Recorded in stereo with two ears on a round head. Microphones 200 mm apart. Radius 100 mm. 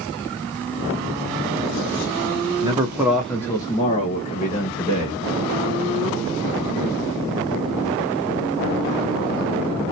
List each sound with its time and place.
2.6 s a man speaking: 25° right (ahead or behind), 0.7 m; by 5.2 s 50° left (ahead or behind), 1.3 m